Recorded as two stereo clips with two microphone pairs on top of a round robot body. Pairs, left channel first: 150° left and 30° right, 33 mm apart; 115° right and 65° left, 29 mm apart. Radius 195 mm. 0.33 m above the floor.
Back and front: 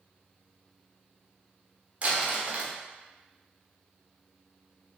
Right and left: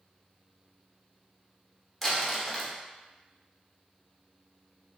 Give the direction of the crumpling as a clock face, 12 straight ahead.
1 o'clock.